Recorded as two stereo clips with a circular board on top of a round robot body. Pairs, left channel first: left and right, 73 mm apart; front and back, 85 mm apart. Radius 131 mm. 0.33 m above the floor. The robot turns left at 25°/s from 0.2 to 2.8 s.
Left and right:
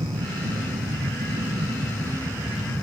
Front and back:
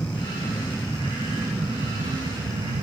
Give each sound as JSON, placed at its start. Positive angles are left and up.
{"t": 0.0, "sound": "an aircraft", "azimuth_deg": -75}